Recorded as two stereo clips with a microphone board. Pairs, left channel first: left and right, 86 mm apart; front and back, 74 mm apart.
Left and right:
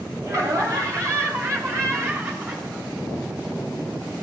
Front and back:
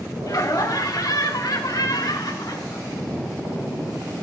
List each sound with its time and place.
0.3 s laughter: 40° right, 2.5 m; by 4.1 s 25° right, 4.5 m